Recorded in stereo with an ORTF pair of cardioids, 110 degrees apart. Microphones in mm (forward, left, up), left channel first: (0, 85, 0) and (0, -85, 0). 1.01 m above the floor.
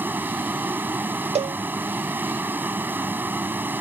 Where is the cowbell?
35° right.